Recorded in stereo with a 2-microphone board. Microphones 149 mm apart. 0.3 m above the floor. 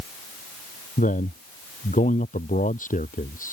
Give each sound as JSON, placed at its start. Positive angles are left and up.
{"t": 1.0, "sound": "a man speaking", "side_deg": 60}